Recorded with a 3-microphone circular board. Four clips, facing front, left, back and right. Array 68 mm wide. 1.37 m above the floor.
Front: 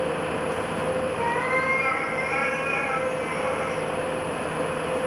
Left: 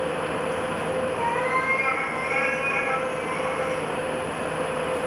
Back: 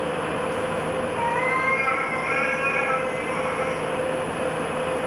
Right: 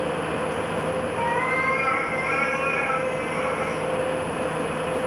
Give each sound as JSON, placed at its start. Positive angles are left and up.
{"t": 1.1, "sound": "a cat meowing", "azimuth_deg": -140, "distance_m": 4.5}